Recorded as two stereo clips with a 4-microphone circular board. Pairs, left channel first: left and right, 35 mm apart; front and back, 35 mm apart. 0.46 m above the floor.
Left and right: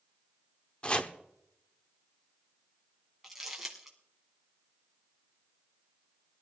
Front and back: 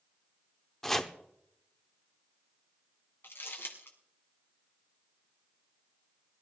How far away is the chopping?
About 1.0 m.